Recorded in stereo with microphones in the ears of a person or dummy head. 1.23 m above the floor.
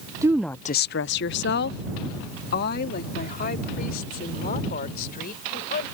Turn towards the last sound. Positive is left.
turn(degrees=50)  # may be behind; listen again after turning